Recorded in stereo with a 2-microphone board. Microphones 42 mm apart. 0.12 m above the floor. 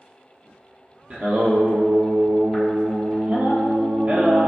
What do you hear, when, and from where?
1.1 s singing: 40° right (ahead or behind), 0.6 m